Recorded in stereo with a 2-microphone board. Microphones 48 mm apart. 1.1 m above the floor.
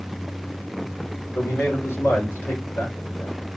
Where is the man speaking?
30° left (ahead or behind), 3.5 m; by 3.4 s 50° left (ahead or behind), 3 m.